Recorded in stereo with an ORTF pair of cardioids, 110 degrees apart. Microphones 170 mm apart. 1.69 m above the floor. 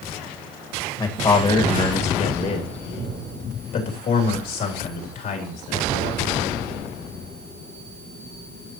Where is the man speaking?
25° left, 2 m; by 6.3 s 65° left, 4.5 m.